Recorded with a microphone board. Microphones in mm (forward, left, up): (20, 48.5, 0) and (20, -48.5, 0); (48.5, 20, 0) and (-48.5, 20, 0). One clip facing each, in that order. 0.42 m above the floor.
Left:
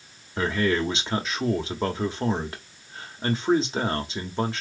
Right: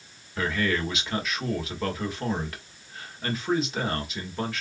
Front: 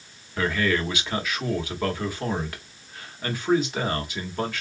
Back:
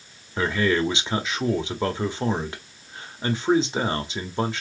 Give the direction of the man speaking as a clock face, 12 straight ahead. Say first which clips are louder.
Left 3 dB, back 2 dB; 8 o'clock.